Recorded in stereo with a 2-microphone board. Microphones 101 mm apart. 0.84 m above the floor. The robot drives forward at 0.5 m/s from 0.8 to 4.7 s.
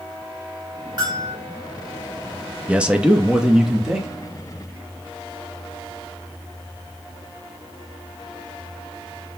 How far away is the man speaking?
About 0.6 m.